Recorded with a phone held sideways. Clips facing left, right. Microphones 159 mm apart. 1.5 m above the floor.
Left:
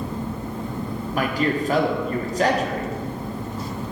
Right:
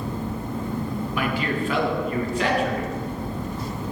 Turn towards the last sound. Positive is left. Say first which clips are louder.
# left 4 dB
turn(degrees=40)  # may be behind; listen again after turning